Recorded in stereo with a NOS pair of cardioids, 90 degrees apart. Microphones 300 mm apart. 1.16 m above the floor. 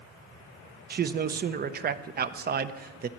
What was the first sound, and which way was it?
A man speaking, 35° right.